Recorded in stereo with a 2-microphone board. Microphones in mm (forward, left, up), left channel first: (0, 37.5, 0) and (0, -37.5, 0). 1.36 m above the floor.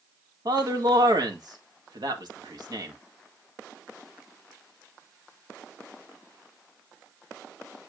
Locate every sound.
0.5 s a man speaking: 65° right (ahead or behind), 1.8 m